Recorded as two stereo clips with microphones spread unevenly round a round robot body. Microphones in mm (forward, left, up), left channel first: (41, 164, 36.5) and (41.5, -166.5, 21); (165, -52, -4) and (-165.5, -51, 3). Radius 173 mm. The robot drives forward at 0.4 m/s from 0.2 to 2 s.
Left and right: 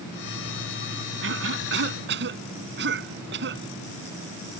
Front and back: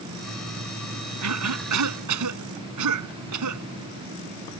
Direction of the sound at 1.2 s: 145° right.